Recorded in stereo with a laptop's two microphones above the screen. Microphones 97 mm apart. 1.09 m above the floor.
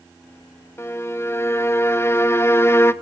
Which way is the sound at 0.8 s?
25° left (ahead or behind).